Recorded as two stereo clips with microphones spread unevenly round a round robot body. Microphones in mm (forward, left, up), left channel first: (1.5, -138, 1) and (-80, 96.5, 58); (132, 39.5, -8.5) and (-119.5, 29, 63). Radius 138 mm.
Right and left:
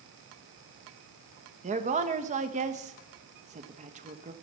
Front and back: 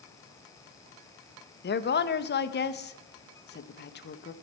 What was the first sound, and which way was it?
A woman speaking, 40° left.